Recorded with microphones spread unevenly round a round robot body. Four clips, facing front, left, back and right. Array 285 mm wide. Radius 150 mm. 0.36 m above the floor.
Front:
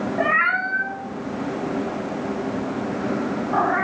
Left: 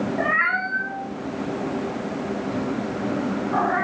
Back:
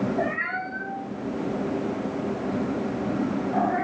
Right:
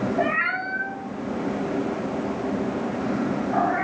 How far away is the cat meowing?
About 0.8 m.